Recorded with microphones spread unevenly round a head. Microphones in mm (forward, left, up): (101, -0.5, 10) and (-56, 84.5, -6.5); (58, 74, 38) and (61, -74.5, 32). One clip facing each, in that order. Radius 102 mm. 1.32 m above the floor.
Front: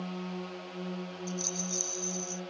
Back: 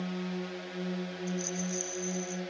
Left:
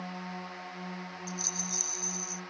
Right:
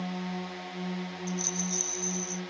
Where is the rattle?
10° left.